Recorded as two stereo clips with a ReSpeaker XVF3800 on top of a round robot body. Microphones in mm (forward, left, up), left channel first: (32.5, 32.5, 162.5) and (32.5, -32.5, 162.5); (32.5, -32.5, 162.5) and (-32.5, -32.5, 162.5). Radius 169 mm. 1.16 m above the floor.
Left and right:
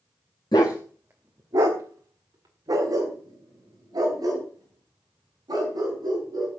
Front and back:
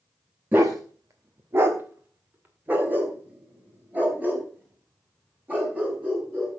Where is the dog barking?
110° left, 0.7 m; by 6.5 s 115° right, 6.5 m.